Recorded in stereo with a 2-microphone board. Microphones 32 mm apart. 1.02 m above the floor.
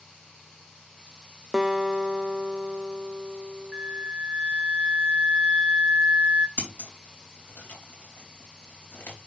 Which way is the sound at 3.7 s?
35° right (ahead or behind).